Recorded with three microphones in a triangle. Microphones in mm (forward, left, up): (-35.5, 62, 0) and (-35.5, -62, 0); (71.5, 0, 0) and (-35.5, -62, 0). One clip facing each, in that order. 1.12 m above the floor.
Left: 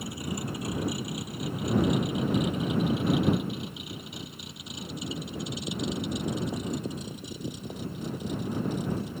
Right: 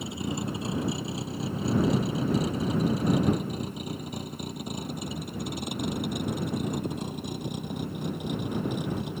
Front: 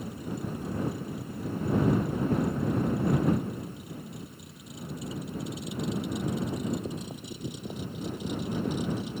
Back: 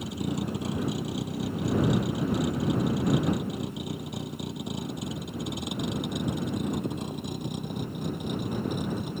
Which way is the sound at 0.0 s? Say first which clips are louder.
Right 3 dB, back 5 dB; 155° right.